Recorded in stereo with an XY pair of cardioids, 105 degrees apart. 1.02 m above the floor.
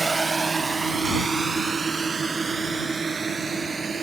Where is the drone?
20° right; by 4.0 s 35° right.